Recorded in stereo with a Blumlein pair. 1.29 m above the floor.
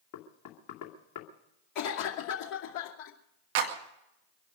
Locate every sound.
0.1 s knocking: 40° left, 2.5 m
1.8 s a cough: 40° left, 2.5 m
3.5 s a clap: 50° right, 2.0 m